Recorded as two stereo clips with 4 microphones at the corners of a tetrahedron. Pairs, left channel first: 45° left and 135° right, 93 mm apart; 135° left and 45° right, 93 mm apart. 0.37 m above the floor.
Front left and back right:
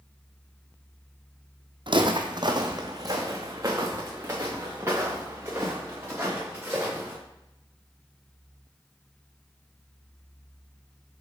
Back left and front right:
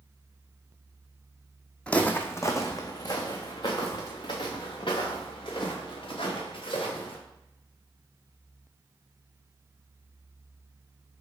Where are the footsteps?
145° right, 0.8 m; by 7.2 s 155° left, 3.5 m.